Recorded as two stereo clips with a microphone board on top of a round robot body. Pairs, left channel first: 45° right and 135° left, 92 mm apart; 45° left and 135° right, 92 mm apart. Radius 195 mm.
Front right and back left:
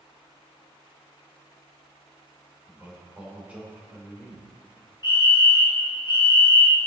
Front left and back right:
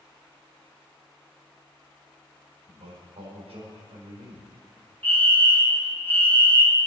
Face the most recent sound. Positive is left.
turn(degrees=-20)